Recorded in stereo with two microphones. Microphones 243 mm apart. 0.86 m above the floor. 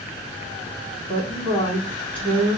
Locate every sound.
1.1 s a woman speaking: 30° left (ahead or behind), 1.5 m